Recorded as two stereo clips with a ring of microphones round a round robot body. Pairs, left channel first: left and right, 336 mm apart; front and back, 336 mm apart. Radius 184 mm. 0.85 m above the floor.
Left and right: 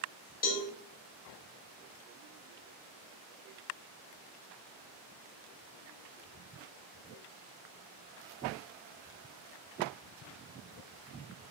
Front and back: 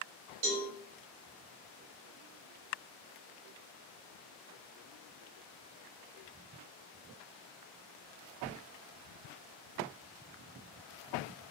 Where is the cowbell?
155° left, 0.8 m.